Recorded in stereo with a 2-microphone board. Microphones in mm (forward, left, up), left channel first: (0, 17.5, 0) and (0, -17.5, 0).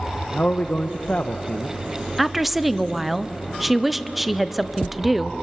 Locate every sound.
0.3 s a man speaking: 40° left (ahead or behind), 1.0 m
2.2 s a woman speaking: 5° right (ahead or behind), 0.7 m